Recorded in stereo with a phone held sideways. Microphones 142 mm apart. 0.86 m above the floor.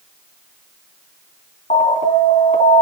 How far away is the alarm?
About 3 m.